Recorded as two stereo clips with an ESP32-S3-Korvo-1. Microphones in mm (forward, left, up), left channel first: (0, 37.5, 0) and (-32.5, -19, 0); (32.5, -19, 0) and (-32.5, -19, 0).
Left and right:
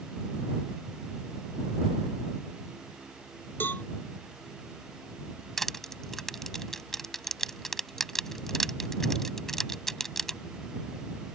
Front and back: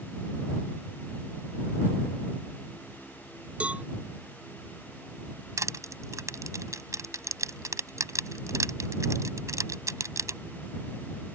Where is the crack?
I don't hear a crack.